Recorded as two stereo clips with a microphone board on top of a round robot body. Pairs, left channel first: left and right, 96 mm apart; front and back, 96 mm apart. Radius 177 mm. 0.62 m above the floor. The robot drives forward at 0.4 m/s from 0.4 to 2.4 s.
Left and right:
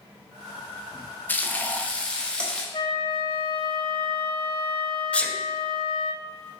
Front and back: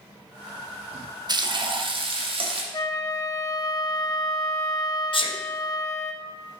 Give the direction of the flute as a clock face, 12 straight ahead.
10 o'clock.